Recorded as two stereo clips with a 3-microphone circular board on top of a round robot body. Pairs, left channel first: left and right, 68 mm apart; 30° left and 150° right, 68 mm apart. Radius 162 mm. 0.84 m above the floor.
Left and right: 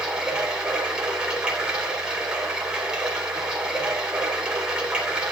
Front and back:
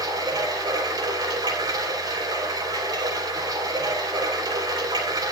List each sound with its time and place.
0.0 s running water: 165° right, 3.5 m